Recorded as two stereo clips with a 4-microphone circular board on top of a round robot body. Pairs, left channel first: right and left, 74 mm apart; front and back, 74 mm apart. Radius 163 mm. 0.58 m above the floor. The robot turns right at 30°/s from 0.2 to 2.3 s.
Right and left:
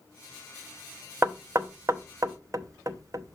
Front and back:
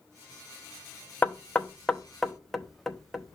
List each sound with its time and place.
1.2 s knocking: 60° left, 0.9 m; by 3.4 s 90° left, 0.9 m